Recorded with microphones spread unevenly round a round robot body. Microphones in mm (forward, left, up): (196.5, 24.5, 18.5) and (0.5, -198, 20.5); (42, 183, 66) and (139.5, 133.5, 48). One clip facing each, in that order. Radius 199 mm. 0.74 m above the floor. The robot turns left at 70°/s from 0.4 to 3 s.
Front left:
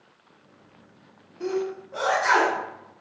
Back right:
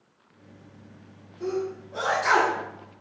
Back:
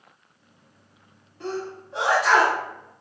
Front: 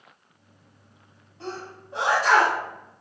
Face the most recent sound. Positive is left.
turn(degrees=-100)